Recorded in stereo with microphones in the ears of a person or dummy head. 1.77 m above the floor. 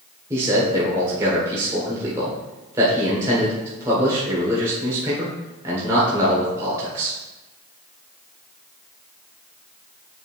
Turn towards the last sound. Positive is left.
turn(degrees=-15)  # may be behind; listen again after turning